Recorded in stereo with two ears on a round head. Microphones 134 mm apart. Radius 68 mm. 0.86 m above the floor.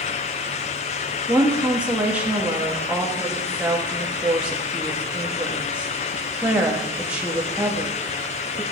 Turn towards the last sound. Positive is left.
turn(degrees=-10)  # may be behind; listen again after turning